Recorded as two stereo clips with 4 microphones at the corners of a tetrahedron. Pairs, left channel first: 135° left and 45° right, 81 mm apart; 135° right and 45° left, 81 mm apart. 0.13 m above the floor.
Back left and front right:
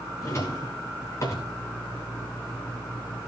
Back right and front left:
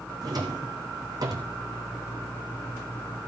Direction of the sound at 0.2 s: 85° left.